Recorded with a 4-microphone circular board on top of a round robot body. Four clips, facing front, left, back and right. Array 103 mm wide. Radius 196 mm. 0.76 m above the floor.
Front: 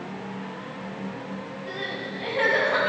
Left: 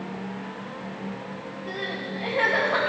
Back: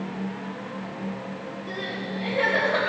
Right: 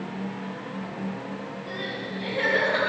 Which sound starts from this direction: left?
Crying, at 1.7 s.